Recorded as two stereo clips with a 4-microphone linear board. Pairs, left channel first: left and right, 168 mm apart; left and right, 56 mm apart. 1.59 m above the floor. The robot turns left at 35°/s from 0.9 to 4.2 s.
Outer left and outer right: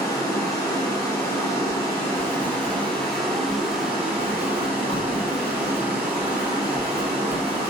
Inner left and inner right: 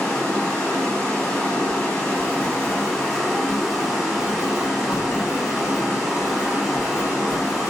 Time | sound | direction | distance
0.0 | running water | 20° left (ahead or behind) | 1.0 m
1.7 | writing | 10° left (ahead or behind) | 1.2 m